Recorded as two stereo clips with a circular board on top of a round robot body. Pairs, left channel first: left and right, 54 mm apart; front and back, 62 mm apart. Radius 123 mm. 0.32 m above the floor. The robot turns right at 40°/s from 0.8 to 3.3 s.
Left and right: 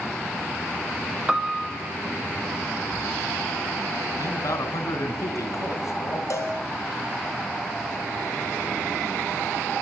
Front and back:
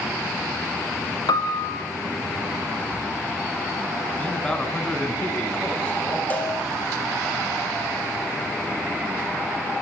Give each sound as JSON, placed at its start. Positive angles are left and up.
{"t": 1.3, "sound": "a piano", "azimuth_deg": -10, "distance_m": 2.5}
{"t": 4.2, "sound": "a man speaking", "azimuth_deg": 75, "distance_m": 4.0}
{"t": 6.3, "sound": "a cowbell", "azimuth_deg": 65, "distance_m": 5.0}